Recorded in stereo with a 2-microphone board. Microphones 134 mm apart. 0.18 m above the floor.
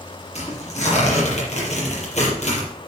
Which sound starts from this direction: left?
Tearing paper, at 0.3 s.